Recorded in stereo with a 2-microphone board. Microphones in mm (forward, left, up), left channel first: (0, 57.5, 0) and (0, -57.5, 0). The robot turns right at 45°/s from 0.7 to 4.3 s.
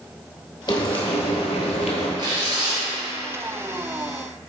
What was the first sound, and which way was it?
Frying, 40° left.